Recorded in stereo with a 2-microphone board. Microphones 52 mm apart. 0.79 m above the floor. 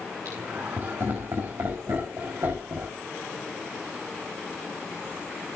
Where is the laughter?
70° right (ahead or behind), 5 m; by 3.0 s 55° right (ahead or behind), 5 m.